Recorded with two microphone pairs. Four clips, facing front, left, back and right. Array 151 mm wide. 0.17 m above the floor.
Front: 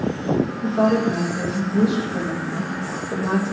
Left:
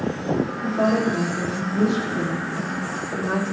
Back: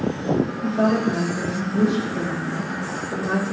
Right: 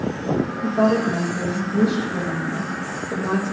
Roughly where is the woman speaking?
Ahead right.